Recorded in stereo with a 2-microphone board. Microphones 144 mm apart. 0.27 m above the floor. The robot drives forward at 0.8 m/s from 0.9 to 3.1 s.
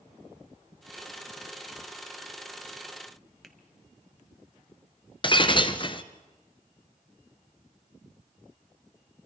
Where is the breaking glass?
35° left (ahead or behind), 1.1 m.